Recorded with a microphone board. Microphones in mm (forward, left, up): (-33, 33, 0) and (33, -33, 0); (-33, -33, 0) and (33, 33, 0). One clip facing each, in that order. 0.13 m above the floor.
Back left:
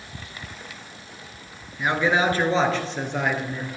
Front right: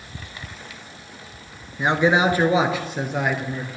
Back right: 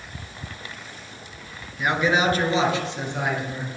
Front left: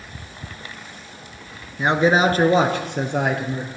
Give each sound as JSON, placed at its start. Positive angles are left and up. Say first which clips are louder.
{"t": 1.8, "sound": "a man speaking", "louder": "front right 3 dB, front left 4 dB", "azimuth_deg": 5, "distance_m": 1.8}